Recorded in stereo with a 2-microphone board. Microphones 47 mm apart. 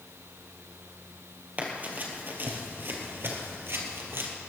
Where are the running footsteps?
35° right (ahead or behind), 3 m; by 4.3 s 55° right (ahead or behind), 3 m.